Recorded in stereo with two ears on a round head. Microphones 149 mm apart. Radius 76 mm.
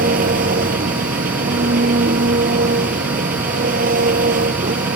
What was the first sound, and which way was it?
An engine running, 60° right (ahead or behind).